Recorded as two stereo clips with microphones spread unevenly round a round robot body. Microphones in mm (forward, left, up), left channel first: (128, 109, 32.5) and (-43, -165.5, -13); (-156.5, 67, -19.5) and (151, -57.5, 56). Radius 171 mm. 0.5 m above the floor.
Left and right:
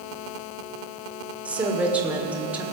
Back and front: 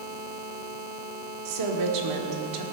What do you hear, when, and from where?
1.4 s a woman speaking: 45° right, 1.9 m